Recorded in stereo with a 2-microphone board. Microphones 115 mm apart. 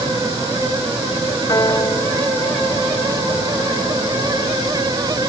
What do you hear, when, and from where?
1.5 s a piano: 35° left (ahead or behind)